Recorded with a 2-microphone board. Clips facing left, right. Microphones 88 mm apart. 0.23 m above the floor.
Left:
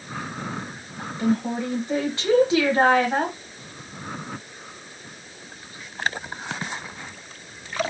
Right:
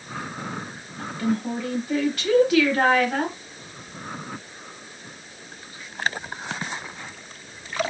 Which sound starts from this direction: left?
A woman speaking, at 1.0 s.